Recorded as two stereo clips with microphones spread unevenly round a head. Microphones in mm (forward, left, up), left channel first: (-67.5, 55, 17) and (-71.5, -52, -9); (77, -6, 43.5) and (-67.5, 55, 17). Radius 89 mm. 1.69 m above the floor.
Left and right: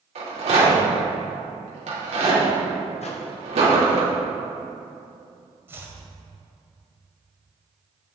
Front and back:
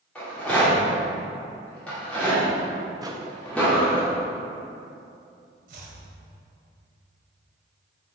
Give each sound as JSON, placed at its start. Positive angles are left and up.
{"t": 0.1, "sound": "a rattle", "azimuth_deg": -105, "distance_m": 3.5}
{"t": 3.0, "sound": "a microwave", "azimuth_deg": 90, "distance_m": 1.3}
{"t": 5.7, "sound": "chopping", "azimuth_deg": -165, "distance_m": 2.0}